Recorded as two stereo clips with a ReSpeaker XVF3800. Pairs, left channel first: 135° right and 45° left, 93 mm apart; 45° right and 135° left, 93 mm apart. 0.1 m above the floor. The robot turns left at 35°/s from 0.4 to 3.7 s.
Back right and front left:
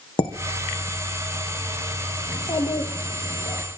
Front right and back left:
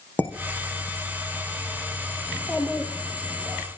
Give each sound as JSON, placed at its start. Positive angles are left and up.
{"t": 0.2, "sound": "dishes clattering", "azimuth_deg": -120, "distance_m": 3.5}
{"t": 2.3, "sound": "a child speaking", "azimuth_deg": -110, "distance_m": 4.5}